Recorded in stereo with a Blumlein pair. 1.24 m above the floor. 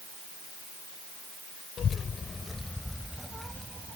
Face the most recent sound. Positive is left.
turn(degrees=-10)